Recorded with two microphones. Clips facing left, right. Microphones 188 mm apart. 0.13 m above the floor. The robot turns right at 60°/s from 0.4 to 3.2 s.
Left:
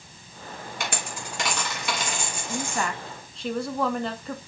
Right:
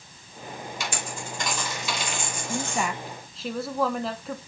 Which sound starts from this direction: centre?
A woman speaking, at 2.5 s.